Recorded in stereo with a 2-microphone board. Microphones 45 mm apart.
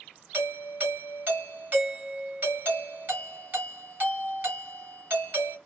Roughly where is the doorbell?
Right.